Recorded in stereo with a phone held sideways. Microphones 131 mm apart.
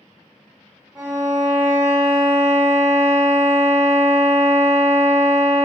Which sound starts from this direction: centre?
A violin, at 0.9 s.